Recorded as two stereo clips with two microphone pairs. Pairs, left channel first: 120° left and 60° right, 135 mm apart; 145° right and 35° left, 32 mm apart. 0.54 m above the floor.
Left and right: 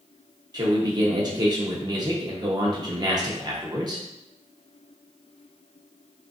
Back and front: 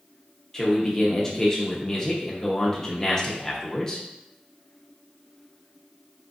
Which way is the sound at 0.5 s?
90° right.